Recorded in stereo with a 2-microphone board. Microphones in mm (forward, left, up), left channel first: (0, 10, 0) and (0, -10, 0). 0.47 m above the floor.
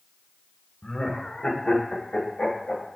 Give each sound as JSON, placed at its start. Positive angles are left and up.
{"t": 0.8, "sound": "laughter", "side_deg": 40, "distance_m": 0.9}